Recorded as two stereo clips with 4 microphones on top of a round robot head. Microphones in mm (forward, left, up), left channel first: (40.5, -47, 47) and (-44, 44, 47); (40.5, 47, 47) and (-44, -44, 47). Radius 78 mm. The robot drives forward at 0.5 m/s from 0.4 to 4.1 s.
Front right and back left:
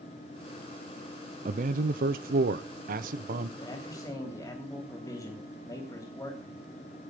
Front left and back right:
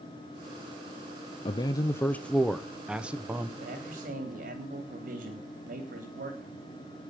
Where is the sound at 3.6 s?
110° right, 3 m; by 6.6 s 115° right, 3.5 m.